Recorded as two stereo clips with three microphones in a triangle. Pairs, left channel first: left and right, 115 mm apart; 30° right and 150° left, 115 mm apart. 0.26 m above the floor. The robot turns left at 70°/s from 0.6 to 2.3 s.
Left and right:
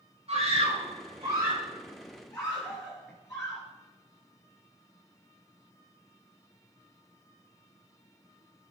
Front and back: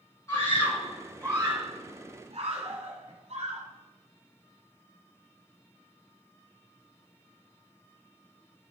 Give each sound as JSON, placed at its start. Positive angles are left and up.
{"t": 0.3, "sound": "a scream", "azimuth_deg": -90, "distance_m": 3.5}